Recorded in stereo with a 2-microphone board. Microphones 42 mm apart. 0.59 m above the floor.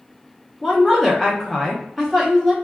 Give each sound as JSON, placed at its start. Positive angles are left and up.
{"t": 0.6, "sound": "a woman speaking", "side_deg": 5, "distance_m": 0.7}